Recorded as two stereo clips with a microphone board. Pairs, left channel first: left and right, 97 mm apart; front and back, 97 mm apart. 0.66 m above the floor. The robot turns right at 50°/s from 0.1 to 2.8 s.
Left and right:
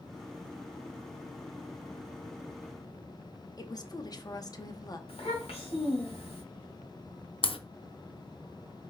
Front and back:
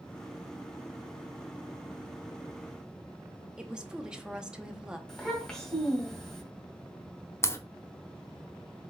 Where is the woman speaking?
100° left, 0.7 m.